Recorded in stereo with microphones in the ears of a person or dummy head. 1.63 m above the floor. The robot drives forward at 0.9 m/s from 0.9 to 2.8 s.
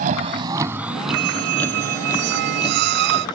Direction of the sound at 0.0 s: 50° right (ahead or behind).